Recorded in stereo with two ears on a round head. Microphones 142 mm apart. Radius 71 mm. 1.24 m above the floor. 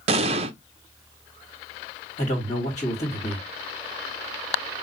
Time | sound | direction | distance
0.1 | an explosion | 40° right (ahead or behind) | 0.6 m
2.2 | a man speaking | 45° left (ahead or behind) | 2.5 m